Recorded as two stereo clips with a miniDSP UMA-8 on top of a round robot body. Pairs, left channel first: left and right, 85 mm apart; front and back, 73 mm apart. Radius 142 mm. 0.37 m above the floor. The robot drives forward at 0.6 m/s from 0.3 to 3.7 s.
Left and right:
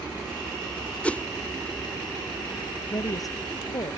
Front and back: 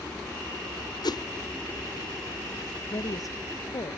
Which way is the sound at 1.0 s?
15° left.